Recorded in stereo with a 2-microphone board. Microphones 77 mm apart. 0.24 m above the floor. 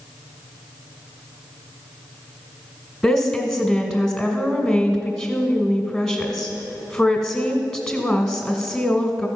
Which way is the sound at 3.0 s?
10° left (ahead or behind).